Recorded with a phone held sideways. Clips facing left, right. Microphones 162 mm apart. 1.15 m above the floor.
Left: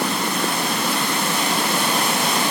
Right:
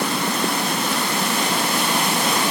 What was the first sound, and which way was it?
Only background noise.